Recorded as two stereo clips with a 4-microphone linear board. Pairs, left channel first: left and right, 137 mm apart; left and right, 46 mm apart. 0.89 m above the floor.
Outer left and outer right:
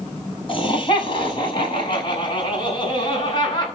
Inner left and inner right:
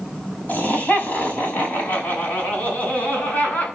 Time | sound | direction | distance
0.5 | laughter | 40° left (ahead or behind) | 6 m